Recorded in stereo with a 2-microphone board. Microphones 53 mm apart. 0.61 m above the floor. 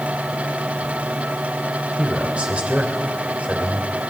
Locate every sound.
2.0 s a man speaking: 25° right (ahead or behind), 3 m